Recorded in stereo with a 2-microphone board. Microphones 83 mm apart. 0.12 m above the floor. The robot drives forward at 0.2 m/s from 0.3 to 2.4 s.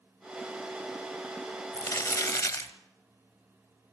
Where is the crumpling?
45° left (ahead or behind), 1.5 m.